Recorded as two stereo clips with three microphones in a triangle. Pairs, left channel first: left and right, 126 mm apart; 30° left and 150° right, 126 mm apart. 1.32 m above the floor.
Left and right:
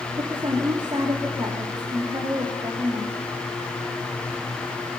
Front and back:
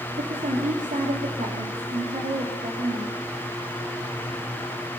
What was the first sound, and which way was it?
A woman speaking, 140° right.